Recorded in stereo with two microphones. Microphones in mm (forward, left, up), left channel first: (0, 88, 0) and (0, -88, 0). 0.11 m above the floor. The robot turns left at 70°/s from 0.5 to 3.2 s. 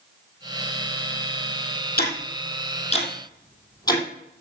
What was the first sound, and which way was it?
Ticking, 60° left (ahead or behind).